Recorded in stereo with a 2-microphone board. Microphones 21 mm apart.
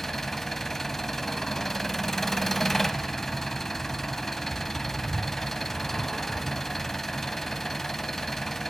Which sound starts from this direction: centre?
An engine running, at 0.0 s.